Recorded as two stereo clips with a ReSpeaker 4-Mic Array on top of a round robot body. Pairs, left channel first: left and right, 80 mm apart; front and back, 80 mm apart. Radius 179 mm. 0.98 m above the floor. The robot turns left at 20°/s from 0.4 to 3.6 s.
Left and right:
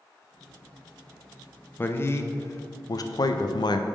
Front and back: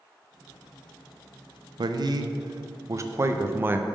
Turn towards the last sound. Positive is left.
turn(degrees=120)